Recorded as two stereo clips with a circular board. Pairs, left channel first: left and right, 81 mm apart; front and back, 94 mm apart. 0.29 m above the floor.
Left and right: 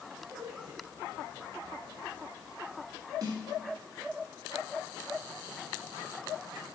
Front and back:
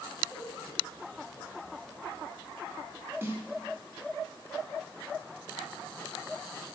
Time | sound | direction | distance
0.3 | a man speaking | 50° right | 3 m
3.2 | a snare drum | 115° right | 3 m